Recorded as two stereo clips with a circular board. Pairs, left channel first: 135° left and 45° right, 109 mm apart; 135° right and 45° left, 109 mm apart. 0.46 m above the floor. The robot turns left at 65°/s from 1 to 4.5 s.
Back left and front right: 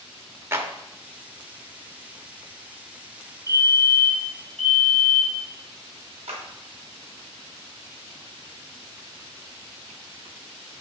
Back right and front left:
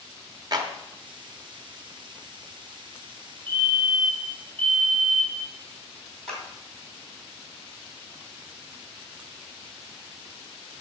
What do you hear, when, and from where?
0.5 s a clap: 15° left, 1.0 m
3.5 s a fire alarm: 15° left, 4 m; by 5.5 s 55° right, 4 m
6.3 s a clap: 50° right, 2.5 m